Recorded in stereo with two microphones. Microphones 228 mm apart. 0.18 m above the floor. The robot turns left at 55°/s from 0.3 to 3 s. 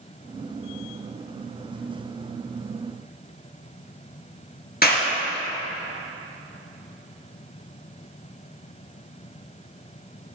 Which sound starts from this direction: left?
A clap, at 4.8 s.